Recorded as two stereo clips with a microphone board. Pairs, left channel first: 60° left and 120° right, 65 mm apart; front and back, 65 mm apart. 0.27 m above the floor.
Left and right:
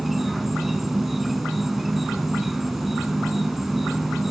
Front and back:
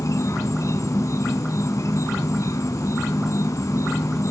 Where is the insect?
35° right, 0.9 m.